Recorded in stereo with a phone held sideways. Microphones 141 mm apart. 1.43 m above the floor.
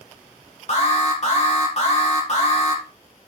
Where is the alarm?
50° left (ahead or behind), 2.5 m.